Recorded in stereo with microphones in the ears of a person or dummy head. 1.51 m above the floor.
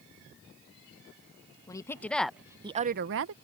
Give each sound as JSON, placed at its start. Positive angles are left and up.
{"t": 1.7, "sound": "a woman speaking", "side_deg": 15}